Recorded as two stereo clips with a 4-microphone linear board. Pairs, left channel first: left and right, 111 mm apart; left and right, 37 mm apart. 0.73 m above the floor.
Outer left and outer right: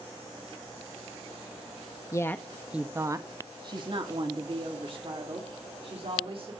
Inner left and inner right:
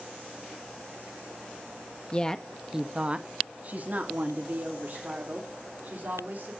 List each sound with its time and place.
2.1 s a woman speaking: 30° left (ahead or behind), 0.5 m; by 6.5 s 55° right (ahead or behind), 2.5 m